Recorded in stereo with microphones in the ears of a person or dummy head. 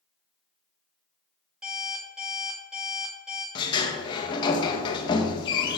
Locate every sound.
1.6 s an alarm clock: 5° right (ahead or behind), 1.8 m
3.5 s a sliding door: 25° left (ahead or behind), 0.7 m